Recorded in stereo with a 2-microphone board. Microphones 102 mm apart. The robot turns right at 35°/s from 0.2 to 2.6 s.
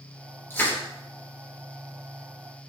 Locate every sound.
0.5 s crushing: 25° left (ahead or behind), 4 m; by 0.8 s 15° left (ahead or behind), 4 m